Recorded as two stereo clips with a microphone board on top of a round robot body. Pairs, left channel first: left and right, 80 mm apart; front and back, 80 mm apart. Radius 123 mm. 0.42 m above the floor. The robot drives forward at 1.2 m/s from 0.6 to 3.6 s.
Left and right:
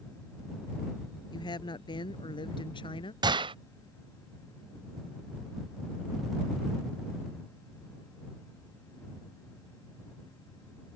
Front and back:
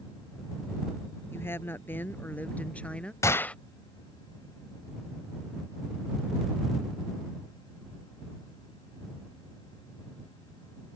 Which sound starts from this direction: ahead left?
A woman speaking, at 1.3 s.